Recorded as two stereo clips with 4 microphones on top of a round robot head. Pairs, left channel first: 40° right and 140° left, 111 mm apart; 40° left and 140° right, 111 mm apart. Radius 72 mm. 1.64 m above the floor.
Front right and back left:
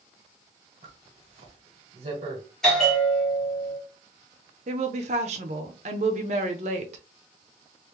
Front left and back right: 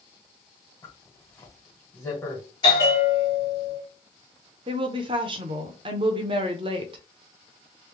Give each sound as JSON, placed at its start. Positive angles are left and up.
{"t": 0.8, "sound": "a zipper", "azimuth_deg": 105, "distance_m": 1.6}
{"t": 2.6, "sound": "a bell", "azimuth_deg": 45, "distance_m": 1.3}
{"t": 4.7, "sound": "a woman speaking", "azimuth_deg": 170, "distance_m": 0.8}